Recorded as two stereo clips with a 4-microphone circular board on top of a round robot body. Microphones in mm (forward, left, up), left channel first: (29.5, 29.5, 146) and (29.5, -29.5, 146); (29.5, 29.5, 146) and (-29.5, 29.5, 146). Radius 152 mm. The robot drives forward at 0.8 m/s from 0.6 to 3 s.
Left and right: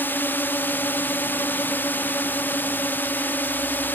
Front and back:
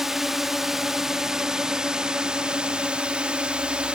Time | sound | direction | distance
0.0 | a drone | 100° left | ?